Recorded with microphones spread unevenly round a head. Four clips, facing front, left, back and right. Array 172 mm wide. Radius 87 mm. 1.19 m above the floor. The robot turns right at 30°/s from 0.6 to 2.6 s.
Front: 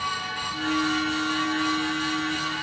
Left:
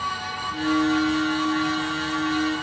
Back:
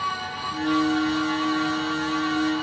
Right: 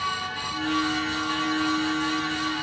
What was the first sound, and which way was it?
Only background noise.